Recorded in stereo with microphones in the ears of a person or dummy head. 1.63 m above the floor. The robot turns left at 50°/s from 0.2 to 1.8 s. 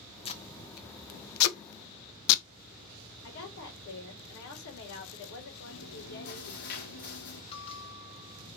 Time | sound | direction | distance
0.2 | tape being pulled | 35° left (ahead or behind) | 0.6 m
3.2 | a woman speaking | 75° left (ahead or behind) | 2.5 m
5.7 | chewing | 55° left (ahead or behind) | 1.7 m
7.5 | a bell | 30° left (ahead or behind) | 0.8 m